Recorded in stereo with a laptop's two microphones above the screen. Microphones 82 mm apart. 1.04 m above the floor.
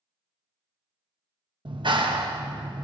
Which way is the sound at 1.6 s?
70° right (ahead or behind).